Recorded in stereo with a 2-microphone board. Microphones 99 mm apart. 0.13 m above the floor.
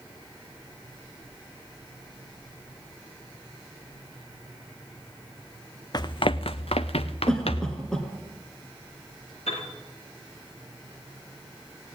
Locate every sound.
5.9 s running footsteps: 40° left (ahead or behind), 0.5 m; by 7.8 s 80° left, 1.2 m
7.3 s a cough: 10° left (ahead or behind), 1.5 m
9.5 s a piano: 85° left, 8 m